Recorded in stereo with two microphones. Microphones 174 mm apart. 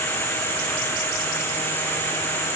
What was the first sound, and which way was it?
Only background noise.